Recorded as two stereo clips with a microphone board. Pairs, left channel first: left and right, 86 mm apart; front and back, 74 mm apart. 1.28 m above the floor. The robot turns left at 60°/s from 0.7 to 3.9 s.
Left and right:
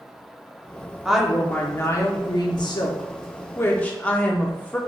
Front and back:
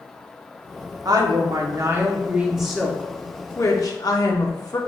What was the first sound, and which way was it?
A woman speaking, 170° right.